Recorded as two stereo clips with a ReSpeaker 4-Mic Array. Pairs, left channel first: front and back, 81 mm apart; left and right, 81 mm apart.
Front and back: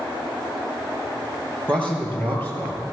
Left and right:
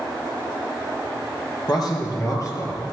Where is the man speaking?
75° left, 3 m; by 2.8 s 50° left, 2.5 m.